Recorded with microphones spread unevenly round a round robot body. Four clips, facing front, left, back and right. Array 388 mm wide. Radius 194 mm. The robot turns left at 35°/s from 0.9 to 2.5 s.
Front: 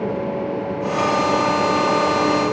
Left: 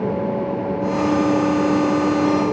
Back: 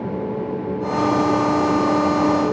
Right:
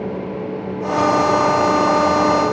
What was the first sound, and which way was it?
Only background noise.